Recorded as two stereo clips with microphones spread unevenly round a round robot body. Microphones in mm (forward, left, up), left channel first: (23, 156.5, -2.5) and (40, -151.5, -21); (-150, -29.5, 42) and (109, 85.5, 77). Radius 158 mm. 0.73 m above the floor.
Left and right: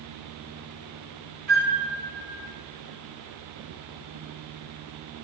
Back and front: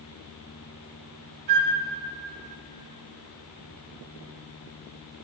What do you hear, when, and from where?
1.5 s a flute: 30° right, 1.2 m